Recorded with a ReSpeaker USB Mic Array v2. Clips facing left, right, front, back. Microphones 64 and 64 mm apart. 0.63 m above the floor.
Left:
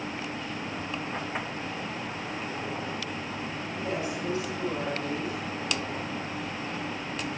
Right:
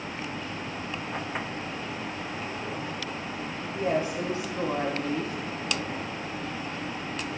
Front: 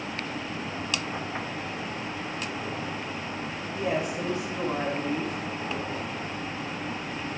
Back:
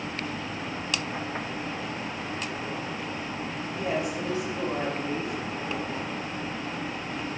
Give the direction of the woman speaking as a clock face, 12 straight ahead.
3 o'clock.